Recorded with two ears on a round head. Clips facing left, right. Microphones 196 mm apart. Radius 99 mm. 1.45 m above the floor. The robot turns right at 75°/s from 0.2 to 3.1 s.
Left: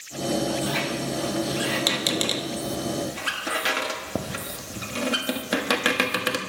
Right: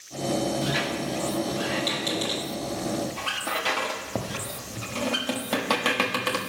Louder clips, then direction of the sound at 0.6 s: Left 1 dB; 25° right (ahead or behind).